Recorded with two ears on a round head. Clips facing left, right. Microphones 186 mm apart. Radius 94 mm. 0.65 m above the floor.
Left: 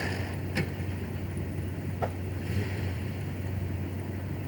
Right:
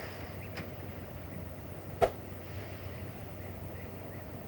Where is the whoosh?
45° right (ahead or behind).